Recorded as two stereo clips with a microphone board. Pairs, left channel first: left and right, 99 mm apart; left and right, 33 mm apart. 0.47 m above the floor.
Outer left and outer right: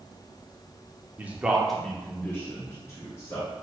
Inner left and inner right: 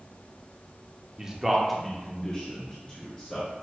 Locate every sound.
1.2 s a man speaking: 20° right (ahead or behind), 0.7 m; by 3.5 s 35° left (ahead or behind), 1.6 m